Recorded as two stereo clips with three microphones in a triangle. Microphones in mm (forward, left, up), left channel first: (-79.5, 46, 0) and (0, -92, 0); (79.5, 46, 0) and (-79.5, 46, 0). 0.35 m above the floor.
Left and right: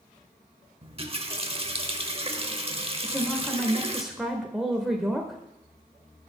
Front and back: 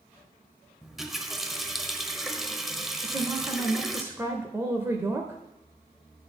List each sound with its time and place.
0.8 s a running tap: 90° right, 0.8 m
3.0 s a woman speaking: 145° right, 0.9 m